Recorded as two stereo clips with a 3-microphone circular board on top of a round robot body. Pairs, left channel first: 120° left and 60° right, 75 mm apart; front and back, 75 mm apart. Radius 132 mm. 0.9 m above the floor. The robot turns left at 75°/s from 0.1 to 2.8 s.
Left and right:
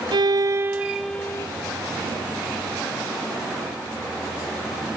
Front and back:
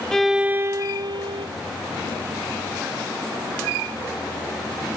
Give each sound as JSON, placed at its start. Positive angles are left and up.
{"t": 0.1, "sound": "a violin", "azimuth_deg": -85}